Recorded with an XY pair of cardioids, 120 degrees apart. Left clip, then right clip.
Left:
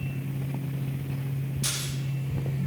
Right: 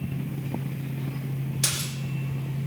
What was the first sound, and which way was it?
A splash, 70° right.